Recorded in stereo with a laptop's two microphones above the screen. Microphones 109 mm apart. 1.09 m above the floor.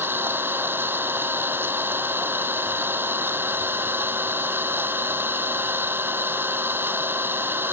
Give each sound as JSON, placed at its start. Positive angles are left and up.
{"t": 0.0, "sound": "an engine running", "side_deg": -20}